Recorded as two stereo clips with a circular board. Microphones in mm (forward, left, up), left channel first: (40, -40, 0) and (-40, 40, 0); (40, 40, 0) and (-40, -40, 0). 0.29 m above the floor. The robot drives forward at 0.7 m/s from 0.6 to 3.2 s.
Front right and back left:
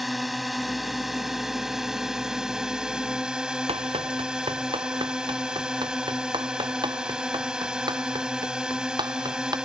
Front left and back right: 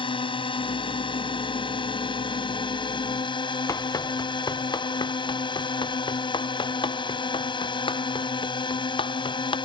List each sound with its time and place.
0.0 s a drone: 45° left; by 9.6 s 55° left
3.7 s running footsteps: 105° left; by 9.5 s 85° left